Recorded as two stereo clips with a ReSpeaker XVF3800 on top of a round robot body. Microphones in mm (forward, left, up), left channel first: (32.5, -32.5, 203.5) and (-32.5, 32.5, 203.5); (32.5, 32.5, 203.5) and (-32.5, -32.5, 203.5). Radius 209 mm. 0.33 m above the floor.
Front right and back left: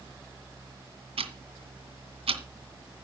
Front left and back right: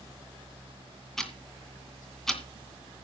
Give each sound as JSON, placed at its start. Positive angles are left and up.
{"t": 1.2, "sound": "ticking", "azimuth_deg": 130, "distance_m": 2.5}